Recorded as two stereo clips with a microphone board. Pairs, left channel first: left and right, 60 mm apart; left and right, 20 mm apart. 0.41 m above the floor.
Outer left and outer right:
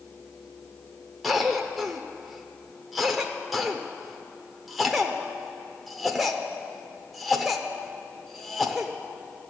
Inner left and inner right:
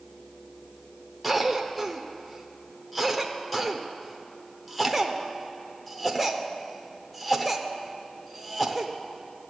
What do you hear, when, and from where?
1.2 s a cough: centre (ahead or behind), 0.8 m